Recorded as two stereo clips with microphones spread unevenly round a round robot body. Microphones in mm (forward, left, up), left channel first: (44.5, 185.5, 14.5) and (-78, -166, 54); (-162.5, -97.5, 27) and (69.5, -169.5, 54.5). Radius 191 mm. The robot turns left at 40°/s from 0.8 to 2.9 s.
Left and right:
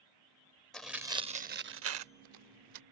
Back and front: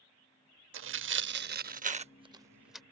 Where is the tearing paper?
25° right; by 2.8 s 105° right.